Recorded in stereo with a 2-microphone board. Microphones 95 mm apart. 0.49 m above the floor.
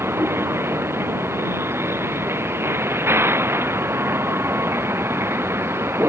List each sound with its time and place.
0.0 s a vehicle: 25° right (ahead or behind)